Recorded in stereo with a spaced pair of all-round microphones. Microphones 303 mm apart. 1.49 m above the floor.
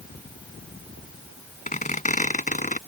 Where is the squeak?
25° left (ahead or behind).